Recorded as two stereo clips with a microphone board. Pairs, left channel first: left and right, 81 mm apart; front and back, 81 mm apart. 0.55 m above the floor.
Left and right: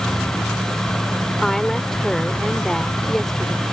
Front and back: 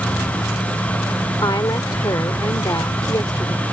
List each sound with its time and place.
1.4 s a woman speaking: 5° left